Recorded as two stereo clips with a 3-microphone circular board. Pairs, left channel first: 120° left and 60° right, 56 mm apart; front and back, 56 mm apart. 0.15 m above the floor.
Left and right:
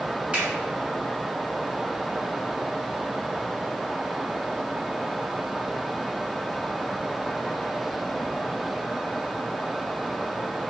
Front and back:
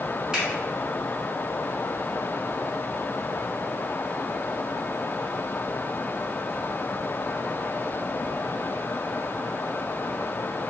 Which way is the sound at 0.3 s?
110° right.